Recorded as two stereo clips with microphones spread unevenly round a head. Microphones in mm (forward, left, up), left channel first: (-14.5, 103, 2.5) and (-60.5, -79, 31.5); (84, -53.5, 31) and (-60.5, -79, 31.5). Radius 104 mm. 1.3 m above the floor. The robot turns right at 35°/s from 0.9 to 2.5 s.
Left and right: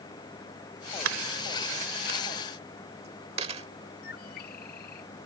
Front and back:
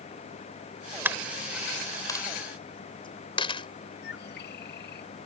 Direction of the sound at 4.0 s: 30° left.